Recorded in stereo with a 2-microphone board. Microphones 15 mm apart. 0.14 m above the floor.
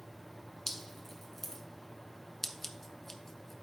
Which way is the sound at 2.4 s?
25° left (ahead or behind).